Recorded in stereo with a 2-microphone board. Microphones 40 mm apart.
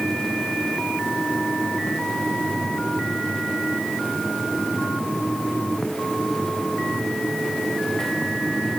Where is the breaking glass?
I don't hear breaking glass.